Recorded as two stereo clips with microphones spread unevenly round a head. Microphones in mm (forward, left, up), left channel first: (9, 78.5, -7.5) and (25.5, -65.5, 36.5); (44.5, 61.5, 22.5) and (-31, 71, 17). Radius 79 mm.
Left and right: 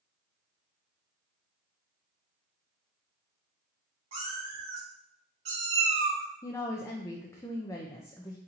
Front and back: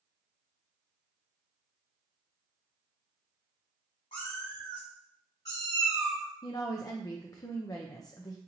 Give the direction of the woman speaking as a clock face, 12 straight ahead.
11 o'clock.